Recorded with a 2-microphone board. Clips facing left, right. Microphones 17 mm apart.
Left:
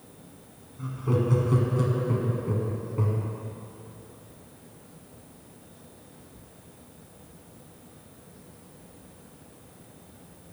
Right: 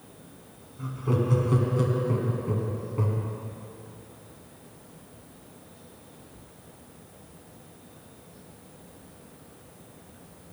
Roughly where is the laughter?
Centre.